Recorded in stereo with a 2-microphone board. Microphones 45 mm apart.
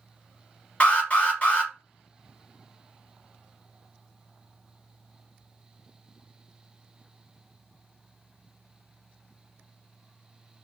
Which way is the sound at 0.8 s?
30° left (ahead or behind).